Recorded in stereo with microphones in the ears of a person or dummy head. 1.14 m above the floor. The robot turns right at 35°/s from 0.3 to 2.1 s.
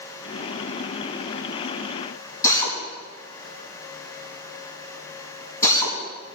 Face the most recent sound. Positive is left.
turn(degrees=20)  # may be behind; listen again after turning